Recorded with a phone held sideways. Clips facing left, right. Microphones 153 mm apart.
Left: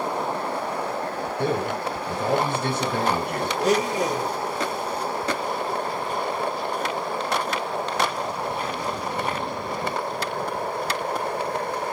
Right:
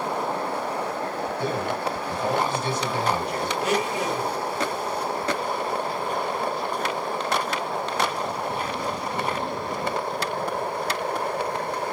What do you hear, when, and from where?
1.4 s a man speaking: 55° left (ahead or behind), 3.5 m
3.6 s a blender: 40° left (ahead or behind), 1.2 m